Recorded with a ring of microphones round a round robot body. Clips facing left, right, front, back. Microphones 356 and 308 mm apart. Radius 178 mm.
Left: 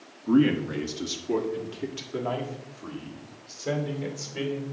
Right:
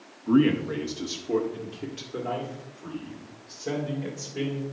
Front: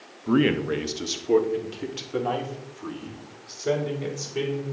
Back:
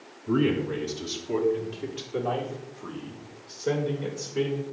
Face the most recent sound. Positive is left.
turn(degrees=35)